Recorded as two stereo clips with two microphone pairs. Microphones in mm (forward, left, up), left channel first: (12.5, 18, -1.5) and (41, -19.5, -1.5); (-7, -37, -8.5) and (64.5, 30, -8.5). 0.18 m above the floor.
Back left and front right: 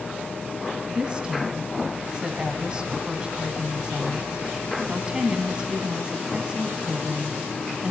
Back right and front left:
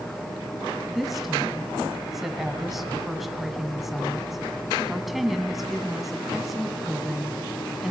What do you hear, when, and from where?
0.9 s a woman speaking: 40° right, 1.5 m